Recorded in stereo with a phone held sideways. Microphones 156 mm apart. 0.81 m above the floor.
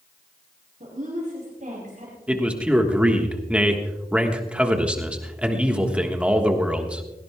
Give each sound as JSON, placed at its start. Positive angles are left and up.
{"t": 0.8, "sound": "a woman speaking", "side_deg": -55, "distance_m": 5.0}
{"t": 2.3, "sound": "a man speaking", "side_deg": -5, "distance_m": 1.4}